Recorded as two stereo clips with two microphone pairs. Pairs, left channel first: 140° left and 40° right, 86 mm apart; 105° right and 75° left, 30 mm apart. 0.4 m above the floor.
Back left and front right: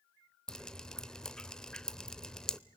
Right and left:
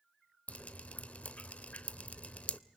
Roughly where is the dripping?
Behind right.